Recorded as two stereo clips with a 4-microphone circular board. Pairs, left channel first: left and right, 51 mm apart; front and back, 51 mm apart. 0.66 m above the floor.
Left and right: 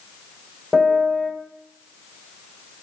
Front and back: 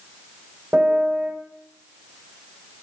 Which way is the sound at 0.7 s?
Straight behind.